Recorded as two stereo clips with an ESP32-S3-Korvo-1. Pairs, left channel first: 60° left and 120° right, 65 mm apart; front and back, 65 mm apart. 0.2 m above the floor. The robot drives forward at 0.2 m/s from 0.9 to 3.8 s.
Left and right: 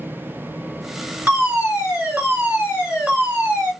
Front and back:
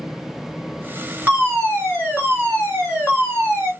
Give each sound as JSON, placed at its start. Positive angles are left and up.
{"t": 1.3, "sound": "a fire alarm", "azimuth_deg": -155, "distance_m": 2.5}